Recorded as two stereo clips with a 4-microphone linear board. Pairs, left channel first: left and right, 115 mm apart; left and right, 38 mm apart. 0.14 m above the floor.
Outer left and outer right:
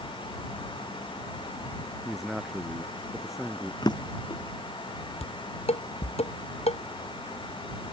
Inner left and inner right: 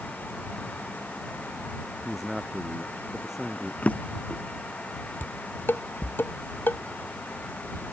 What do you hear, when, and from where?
2.0 s a man speaking: 5° right (ahead or behind)
3.8 s a drawer: 40° left (ahead or behind)
5.2 s dishes clattering: 75° left (ahead or behind)